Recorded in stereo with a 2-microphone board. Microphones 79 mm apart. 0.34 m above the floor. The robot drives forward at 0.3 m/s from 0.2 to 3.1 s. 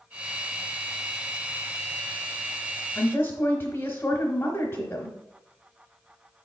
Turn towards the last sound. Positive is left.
turn(degrees=30)  # may be behind; listen again after turning